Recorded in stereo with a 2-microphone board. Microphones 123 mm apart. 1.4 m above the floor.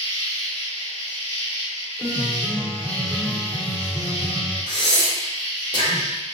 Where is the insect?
55° left (ahead or behind), 1.5 m.